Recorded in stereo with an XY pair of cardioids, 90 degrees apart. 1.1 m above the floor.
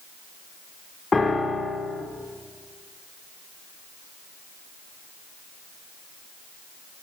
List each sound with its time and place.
1.1 s a piano: 30° left, 0.6 m